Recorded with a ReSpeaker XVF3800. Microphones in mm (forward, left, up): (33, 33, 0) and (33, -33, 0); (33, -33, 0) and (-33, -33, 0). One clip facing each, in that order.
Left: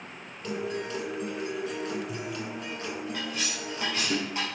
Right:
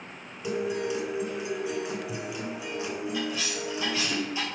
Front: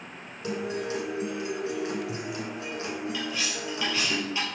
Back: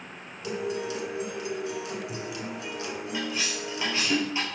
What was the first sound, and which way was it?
A guitar, 20° right.